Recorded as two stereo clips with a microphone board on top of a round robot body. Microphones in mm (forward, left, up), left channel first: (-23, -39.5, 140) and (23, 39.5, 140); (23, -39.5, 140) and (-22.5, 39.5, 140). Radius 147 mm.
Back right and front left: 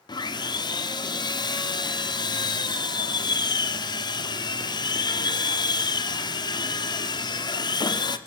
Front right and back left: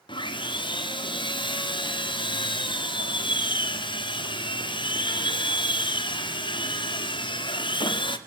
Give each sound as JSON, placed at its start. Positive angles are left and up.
{"t": 0.1, "sound": "sawing", "azimuth_deg": -85, "distance_m": 2.5}